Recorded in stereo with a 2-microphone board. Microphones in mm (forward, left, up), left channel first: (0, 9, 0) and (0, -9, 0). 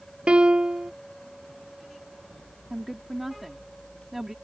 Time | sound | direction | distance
0.3 | a piano | 75° right (ahead or behind) | ?
2.7 | a woman speaking | 15° right (ahead or behind) | ?